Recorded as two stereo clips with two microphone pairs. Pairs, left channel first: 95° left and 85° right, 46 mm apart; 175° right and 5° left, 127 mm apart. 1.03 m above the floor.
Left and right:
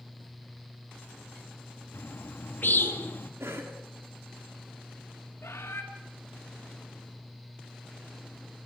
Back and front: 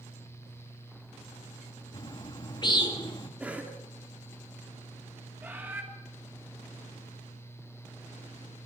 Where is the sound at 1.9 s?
135° left, 1.6 m.